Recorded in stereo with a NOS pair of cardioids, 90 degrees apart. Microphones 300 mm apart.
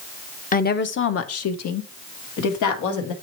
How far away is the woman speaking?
About 0.9 m.